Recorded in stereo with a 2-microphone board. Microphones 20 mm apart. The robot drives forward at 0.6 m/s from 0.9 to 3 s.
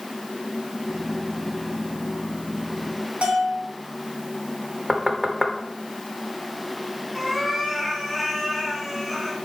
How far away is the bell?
About 2.5 m.